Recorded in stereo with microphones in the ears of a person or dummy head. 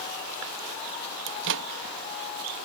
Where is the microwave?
65° right (ahead or behind).